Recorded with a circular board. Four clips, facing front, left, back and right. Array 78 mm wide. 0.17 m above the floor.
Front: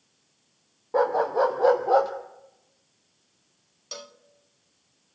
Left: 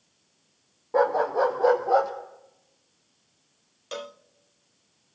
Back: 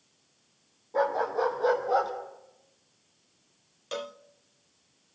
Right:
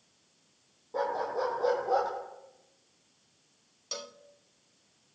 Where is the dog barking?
40° left, 2.5 m; by 2.1 s 20° left, 2.5 m.